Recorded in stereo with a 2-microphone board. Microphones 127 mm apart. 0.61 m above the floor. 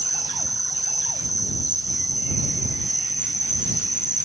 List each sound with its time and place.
0.0 s an insect: 85° right